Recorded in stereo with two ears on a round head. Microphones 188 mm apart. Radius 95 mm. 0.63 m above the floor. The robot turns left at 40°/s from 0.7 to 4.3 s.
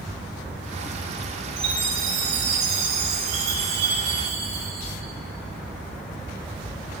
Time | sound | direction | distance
1.6 | a chime | 25° right | 2.5 m